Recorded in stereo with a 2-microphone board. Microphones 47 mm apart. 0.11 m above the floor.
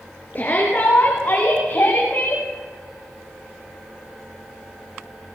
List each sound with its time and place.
0.3 s a shout: 40° left (ahead or behind), 6.5 m; by 2.4 s 55° left (ahead or behind), 9 m